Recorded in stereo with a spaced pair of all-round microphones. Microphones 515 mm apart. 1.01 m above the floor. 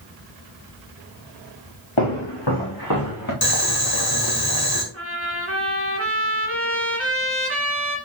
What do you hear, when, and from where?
2.0 s footsteps: 60° left (ahead or behind), 4 m; by 3.3 s 35° left (ahead or behind), 4.5 m
3.4 s boiling: 45° left (ahead or behind), 1.5 m
4.9 s a trumpet: 25° right (ahead or behind), 2 m